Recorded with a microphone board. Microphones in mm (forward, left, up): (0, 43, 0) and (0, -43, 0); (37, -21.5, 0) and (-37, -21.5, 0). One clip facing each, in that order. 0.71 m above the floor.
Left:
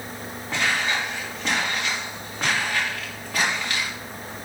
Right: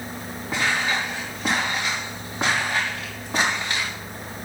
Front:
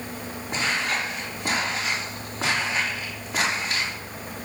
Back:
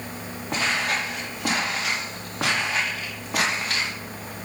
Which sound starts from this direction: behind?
Footsteps, at 0.5 s.